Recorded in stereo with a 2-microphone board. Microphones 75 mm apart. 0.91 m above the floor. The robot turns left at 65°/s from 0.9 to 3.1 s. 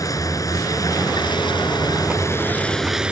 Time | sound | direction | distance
0.0 | a vehicle | 130° left | ?